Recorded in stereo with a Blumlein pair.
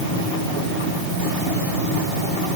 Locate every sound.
Only background noise.